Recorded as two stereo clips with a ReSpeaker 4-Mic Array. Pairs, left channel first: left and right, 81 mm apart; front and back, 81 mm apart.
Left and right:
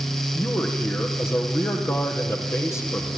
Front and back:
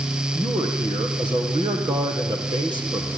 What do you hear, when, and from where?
0.3 s a man speaking: 150° left, 4.5 m